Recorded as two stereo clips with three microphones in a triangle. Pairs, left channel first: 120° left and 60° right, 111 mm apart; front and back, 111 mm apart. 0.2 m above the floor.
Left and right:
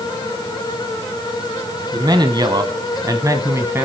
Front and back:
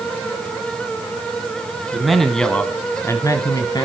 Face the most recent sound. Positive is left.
turn(degrees=-5)